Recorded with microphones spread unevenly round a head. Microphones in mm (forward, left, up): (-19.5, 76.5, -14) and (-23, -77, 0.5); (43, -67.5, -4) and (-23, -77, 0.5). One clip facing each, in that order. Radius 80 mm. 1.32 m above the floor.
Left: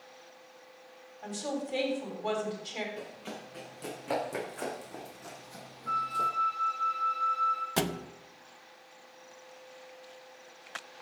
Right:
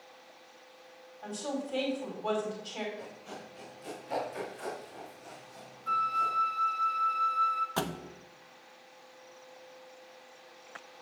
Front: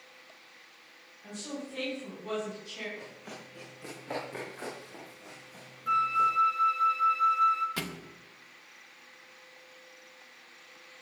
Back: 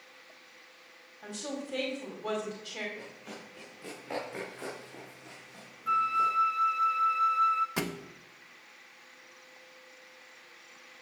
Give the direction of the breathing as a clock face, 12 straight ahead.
No breathing in this recording.